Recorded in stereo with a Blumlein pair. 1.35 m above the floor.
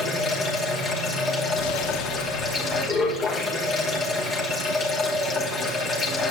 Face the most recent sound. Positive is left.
turn(degrees=25)